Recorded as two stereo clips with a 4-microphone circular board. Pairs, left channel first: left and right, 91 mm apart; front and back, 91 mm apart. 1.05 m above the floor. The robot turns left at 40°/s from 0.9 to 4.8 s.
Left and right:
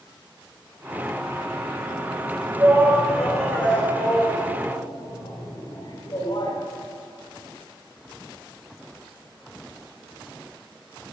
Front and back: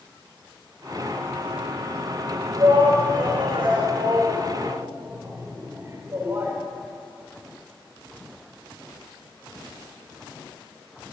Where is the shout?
150° right, 4 m; by 6.5 s 120° left, 4 m.